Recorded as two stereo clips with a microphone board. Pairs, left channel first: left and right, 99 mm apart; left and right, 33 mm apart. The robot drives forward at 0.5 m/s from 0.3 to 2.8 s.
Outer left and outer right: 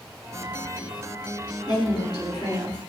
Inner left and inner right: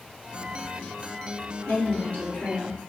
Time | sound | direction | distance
1.7 | a woman speaking | 45° left (ahead or behind) | 1.9 m